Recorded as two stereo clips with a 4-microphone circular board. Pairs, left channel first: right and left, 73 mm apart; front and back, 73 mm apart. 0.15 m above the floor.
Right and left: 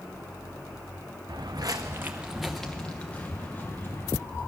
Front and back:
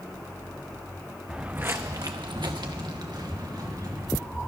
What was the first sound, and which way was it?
Footsteps, 100° left.